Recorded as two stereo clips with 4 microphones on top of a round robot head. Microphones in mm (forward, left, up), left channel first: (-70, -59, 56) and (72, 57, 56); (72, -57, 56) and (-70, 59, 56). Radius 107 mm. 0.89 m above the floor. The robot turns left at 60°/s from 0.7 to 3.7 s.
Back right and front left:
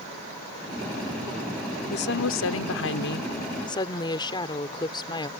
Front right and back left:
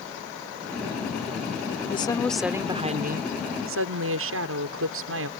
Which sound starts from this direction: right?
A woman speaking, at 1.9 s.